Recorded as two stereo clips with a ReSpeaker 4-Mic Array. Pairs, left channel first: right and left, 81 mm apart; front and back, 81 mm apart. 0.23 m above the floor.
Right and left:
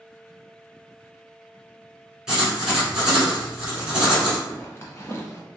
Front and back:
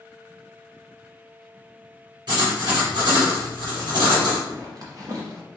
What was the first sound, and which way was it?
Writing, 170° left.